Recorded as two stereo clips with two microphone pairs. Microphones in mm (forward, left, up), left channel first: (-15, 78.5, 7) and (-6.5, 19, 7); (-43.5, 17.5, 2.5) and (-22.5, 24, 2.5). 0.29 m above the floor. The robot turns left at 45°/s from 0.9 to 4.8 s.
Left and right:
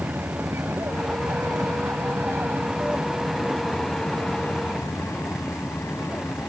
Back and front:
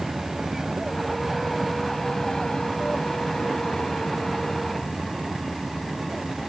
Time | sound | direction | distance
0.0 | an aircraft | 60° right | ?